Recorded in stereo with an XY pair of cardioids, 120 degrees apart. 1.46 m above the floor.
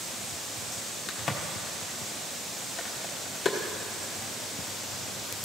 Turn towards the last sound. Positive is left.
turn(degrees=35)